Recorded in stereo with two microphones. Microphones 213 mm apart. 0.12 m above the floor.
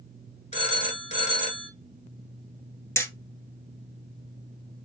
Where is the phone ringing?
30° left (ahead or behind), 1.0 m.